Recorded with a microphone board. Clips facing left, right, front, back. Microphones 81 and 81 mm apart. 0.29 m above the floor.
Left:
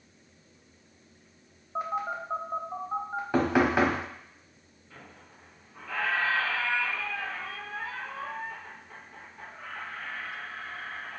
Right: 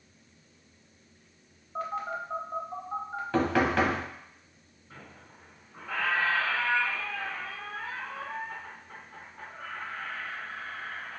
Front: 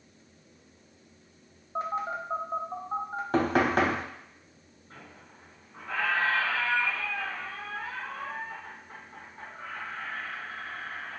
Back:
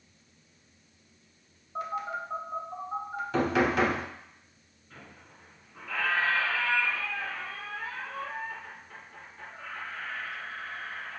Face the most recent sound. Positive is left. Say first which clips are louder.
# right 1 dB, front 1 dB
turn(degrees=-35)